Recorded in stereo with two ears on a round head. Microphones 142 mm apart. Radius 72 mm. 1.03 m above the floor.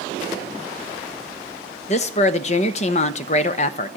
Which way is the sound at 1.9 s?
40° left (ahead or behind).